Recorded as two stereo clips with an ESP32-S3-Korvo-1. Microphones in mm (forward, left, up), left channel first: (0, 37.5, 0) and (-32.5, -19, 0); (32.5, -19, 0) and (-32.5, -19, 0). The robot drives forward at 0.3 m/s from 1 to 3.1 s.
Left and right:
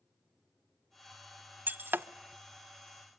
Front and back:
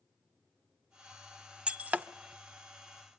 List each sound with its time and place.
1.7 s breaking glass: 125° right, 0.5 m; by 2.1 s 140° right, 0.6 m